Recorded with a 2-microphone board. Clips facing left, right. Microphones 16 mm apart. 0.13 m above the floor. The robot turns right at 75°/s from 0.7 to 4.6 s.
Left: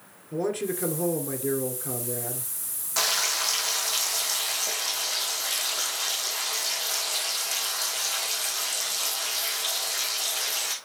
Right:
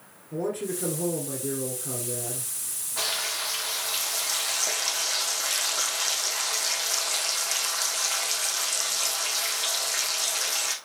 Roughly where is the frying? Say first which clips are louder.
Left 4 dB; left.